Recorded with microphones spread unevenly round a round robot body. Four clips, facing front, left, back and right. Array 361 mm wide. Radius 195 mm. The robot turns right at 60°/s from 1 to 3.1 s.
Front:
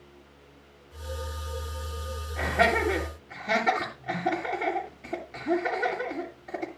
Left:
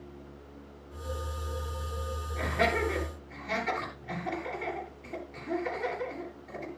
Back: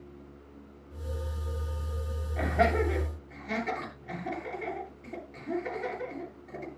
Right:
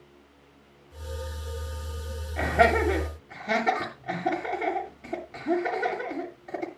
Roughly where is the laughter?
Right.